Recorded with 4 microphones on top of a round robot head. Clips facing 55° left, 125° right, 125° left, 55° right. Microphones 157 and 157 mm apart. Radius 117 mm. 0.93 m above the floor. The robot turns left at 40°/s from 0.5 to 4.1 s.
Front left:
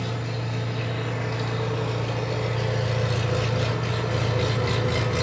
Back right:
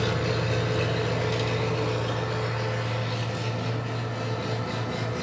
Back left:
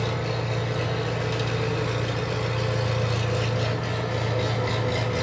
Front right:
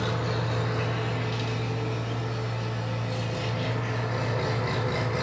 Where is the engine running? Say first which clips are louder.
Back right 4 dB, back left 1 dB; 160° right, 2 m; by 5.2 s 60° left, 2 m.